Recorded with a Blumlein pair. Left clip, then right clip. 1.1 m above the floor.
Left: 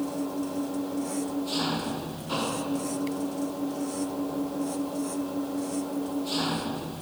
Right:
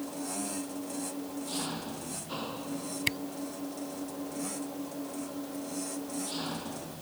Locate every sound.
0.0 s an engine running: 25° left
3.1 s a camera shutter: 55° right